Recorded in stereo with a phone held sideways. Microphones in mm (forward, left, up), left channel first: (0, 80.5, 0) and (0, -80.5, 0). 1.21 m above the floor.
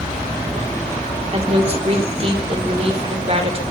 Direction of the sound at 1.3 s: 35° right (ahead or behind).